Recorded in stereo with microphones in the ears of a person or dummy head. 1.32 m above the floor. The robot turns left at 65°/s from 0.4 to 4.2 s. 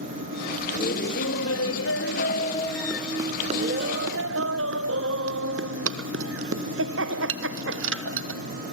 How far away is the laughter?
About 1.1 m.